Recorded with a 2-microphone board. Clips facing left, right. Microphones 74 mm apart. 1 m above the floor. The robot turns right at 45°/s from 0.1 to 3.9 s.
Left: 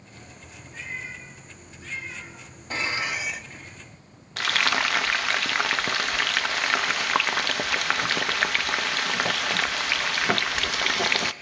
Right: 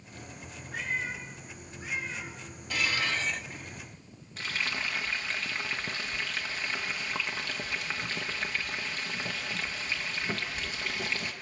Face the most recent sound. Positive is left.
turn(degrees=80)